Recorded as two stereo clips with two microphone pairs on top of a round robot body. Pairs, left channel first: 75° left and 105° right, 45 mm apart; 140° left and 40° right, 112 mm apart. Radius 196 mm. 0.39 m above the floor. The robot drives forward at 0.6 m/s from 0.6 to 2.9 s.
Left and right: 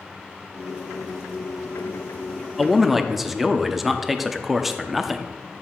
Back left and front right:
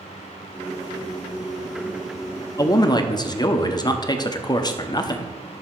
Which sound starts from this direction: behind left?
A man speaking, at 2.6 s.